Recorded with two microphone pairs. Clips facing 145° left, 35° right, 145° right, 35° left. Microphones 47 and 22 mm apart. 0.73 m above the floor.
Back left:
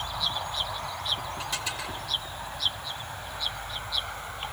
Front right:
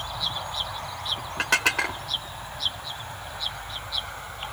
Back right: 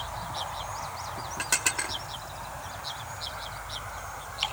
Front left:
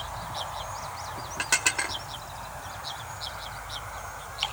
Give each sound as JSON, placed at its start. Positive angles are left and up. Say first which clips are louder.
{"t": 1.4, "sound": "dishes clattering", "louder": "front right 10 dB, front left 3 dB", "azimuth_deg": -40, "distance_m": 0.9}